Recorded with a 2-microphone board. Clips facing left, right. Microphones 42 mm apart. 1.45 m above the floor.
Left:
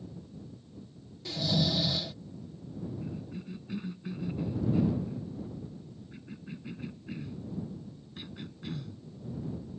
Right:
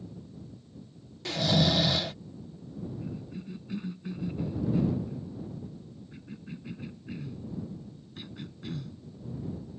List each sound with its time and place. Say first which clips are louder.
1.2 s snoring: right 4 dB; 65° right (ahead or behind)
3.0 s a cough: right 1 dB; centre (ahead or behind)